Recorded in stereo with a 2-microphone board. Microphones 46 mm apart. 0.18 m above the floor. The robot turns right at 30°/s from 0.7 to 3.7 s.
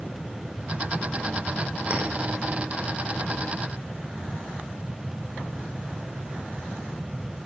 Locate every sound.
1.9 s a clink: 30° right (ahead or behind), 6.5 m; by 2.0 s 35° right (ahead or behind), 6.5 m